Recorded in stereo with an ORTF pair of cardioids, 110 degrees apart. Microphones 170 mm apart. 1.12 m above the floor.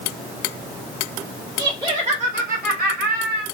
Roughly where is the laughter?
Ahead.